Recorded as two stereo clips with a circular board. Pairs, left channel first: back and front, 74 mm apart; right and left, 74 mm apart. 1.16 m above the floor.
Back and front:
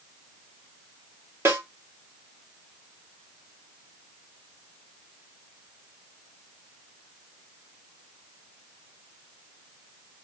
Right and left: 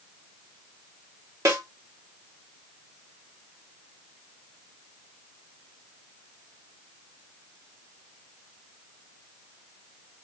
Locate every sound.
1.4 s a snare drum: 55° left, 1.0 m